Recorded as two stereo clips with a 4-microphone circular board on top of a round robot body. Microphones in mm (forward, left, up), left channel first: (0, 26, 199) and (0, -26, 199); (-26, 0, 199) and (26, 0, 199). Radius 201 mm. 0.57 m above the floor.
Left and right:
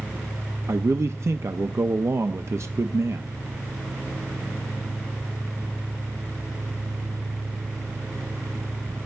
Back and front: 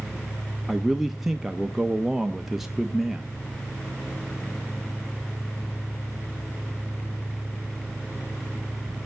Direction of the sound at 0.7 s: 85° right.